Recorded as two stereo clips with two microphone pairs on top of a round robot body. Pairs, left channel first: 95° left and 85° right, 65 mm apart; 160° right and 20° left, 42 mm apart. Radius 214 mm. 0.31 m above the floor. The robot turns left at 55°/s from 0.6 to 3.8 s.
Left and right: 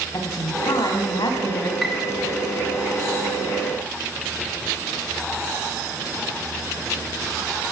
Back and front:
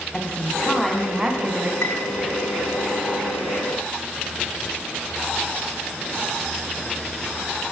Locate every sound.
0.1 s a woman speaking: 130° left, 4 m; by 1.7 s 70° left, 4 m
1.8 s a piano: 170° right, 2.5 m; by 2.1 s 175° left, 2.5 m